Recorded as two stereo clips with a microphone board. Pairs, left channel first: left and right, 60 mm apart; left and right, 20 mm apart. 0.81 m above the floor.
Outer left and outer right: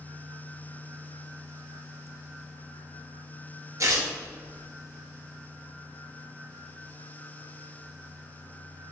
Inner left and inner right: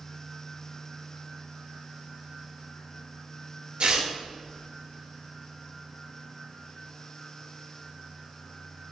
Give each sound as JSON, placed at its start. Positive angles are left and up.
{"t": 3.8, "sound": "tearing paper", "side_deg": -60, "distance_m": 0.6}